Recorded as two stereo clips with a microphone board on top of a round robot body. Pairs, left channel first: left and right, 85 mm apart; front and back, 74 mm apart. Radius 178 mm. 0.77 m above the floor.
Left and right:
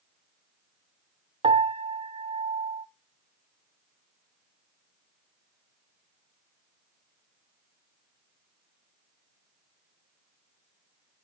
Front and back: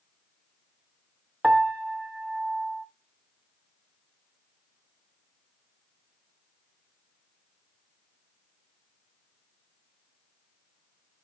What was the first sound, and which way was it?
A piano, 90° right.